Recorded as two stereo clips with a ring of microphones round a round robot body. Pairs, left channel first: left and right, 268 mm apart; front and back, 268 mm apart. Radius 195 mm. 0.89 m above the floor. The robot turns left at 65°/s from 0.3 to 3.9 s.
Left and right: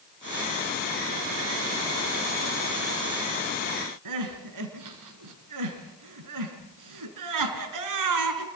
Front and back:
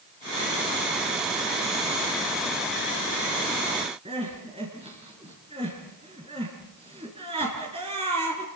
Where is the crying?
105° right, 3.5 m.